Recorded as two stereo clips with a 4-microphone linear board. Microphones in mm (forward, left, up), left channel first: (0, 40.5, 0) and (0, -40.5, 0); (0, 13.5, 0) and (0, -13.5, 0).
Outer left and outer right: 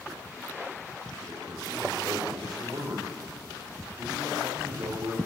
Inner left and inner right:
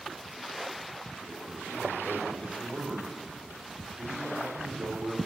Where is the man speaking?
50° right (ahead or behind), 4 m; by 5.2 s 70° right (ahead or behind), 3 m.